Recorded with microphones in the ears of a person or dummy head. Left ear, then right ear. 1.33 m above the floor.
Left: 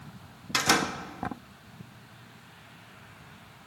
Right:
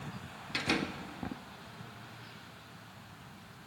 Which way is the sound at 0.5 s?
40° left (ahead or behind).